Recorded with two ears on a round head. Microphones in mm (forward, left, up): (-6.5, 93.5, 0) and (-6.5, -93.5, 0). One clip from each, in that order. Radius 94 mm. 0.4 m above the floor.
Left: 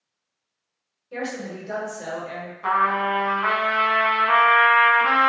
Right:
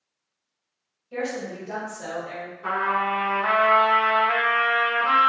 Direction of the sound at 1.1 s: 10° left (ahead or behind).